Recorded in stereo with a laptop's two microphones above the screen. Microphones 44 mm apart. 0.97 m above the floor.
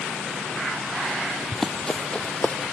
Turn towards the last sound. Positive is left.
turn(degrees=35)  # may be behind; listen again after turning